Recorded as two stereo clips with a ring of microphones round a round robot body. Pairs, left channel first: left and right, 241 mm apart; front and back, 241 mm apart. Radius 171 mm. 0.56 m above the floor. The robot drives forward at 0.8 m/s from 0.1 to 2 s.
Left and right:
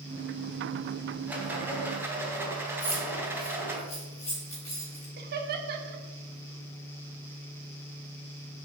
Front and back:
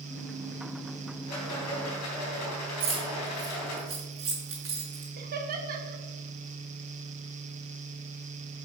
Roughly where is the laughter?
Behind right.